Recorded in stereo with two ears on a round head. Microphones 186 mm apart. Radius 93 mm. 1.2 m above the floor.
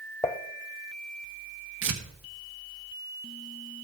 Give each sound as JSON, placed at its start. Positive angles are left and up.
{"t": 0.2, "sound": "dishes clattering", "side_deg": 15, "distance_m": 0.6}
{"t": 1.8, "sound": "tearing paper", "side_deg": -60, "distance_m": 1.4}